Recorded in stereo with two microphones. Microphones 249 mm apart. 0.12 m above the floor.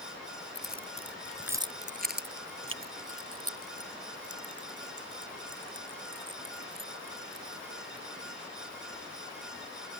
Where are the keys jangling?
50° left (ahead or behind); by 8.0 s 75° right (ahead or behind).